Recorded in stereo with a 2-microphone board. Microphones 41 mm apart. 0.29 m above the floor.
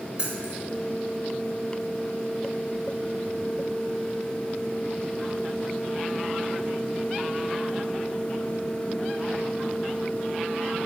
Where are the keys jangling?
25° right (ahead or behind), 1.8 m.